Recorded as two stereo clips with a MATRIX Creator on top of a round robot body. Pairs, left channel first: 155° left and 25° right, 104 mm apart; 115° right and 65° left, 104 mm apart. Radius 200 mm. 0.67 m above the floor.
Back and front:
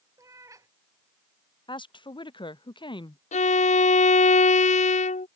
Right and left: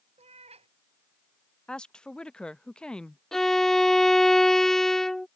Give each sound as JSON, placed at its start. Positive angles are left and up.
{"t": 0.2, "sound": "a cat meowing", "azimuth_deg": 40}
{"t": 1.7, "sound": "a woman speaking", "azimuth_deg": 170}
{"t": 3.3, "sound": "a violin", "azimuth_deg": 160}